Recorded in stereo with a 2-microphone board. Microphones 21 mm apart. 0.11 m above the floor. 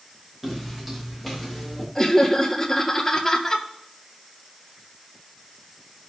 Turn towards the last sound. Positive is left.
turn(degrees=20)  # may be behind; listen again after turning